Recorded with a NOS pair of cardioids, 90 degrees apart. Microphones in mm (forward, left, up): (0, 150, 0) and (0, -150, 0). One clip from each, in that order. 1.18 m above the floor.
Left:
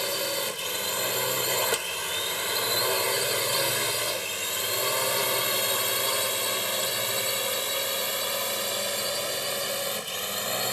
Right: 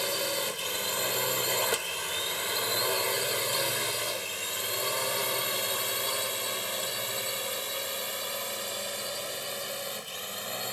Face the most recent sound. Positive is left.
turn(degrees=50)